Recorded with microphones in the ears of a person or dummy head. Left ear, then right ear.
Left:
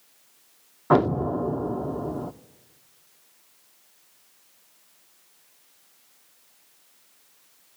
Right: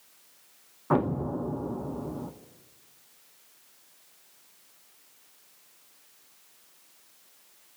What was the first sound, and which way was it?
An explosion, 30° left (ahead or behind).